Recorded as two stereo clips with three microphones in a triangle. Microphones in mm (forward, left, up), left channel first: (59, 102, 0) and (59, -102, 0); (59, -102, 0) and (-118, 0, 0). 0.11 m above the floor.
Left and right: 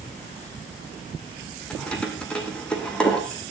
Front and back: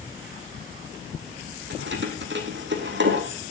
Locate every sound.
1.7 s keys jangling: 175° left, 3 m